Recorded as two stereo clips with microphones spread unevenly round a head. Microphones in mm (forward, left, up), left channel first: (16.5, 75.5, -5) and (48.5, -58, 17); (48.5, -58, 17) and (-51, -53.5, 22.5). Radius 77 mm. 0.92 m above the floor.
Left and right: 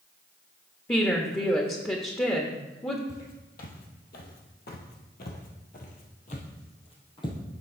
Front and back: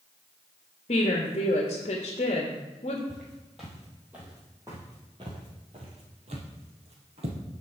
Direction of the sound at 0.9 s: 35° left.